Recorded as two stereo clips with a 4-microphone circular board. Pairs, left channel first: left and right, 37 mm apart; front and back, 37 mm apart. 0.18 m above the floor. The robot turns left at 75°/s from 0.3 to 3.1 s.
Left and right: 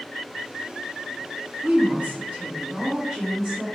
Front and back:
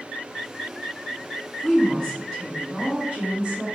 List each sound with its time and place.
1.6 s a woman speaking: 40° right, 2 m; by 3.7 s 150° right, 2 m